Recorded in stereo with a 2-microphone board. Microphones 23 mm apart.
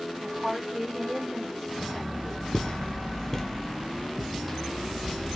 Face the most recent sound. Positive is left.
turn(degrees=-10)  # may be behind; listen again after turning